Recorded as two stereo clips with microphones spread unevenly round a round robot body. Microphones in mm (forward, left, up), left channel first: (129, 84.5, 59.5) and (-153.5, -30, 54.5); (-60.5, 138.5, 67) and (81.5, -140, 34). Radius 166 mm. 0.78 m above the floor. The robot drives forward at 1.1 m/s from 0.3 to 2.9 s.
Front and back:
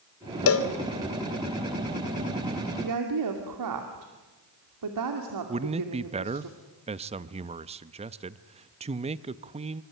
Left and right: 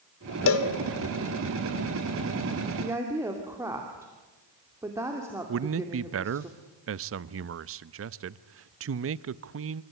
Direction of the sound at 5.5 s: 90° right.